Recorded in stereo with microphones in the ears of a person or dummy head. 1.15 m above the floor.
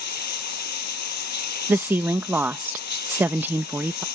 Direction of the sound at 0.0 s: 50° left (ahead or behind).